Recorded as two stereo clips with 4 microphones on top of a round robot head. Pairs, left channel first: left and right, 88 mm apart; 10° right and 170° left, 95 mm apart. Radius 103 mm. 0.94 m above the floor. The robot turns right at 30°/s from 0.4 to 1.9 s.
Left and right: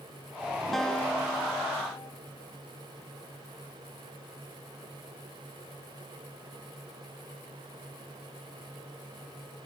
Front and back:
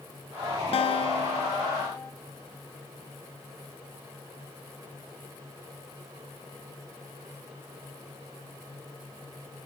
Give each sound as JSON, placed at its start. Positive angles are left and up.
{"t": 0.7, "sound": "a guitar", "azimuth_deg": 0, "distance_m": 0.6}